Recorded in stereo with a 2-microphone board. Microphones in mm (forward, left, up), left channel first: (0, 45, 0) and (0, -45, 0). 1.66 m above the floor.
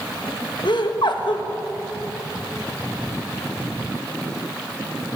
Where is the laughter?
65° left (ahead or behind), 1.7 m.